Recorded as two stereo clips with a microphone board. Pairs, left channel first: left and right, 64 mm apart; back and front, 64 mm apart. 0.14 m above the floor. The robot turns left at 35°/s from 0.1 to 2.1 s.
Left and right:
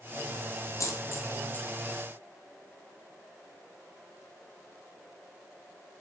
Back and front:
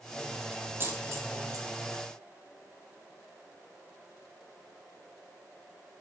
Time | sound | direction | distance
0.8 | a dropped coin | 55° left | 1.2 m